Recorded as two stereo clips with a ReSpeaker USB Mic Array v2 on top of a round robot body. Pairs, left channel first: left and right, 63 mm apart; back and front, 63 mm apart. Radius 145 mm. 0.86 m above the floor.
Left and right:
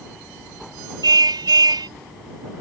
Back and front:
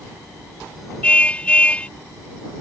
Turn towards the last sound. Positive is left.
turn(degrees=-110)